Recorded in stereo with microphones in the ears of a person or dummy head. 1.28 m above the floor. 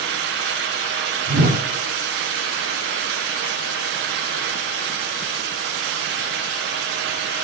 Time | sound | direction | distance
1.3 | a whoosh | 45° right (ahead or behind) | 1.1 m